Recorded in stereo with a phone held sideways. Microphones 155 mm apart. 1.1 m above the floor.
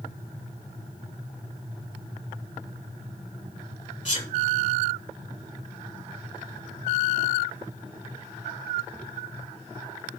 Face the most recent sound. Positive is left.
turn(degrees=50)  # may be behind; listen again after turning